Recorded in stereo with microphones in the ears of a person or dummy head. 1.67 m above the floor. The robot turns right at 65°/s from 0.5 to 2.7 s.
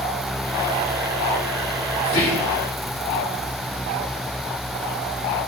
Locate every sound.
2.0 s whispering: 35° left, 1.7 m; by 2.6 s 70° left, 1.7 m